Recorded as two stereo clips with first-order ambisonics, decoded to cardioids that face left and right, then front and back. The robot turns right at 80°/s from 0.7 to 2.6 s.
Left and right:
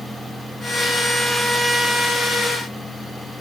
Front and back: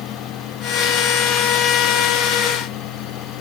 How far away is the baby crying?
I don't hear a baby crying.